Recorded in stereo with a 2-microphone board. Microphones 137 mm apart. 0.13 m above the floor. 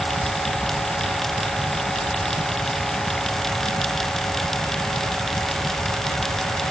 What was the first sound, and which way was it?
Only background noise.